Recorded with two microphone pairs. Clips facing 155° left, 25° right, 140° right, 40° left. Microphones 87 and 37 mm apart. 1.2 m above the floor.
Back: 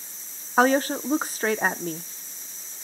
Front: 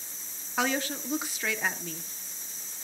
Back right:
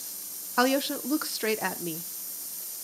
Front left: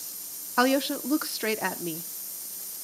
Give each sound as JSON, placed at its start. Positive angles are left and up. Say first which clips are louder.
{"t": 0.6, "sound": "a woman speaking", "louder": "back 10 dB, front left 1 dB", "azimuth_deg": 130, "distance_m": 0.7}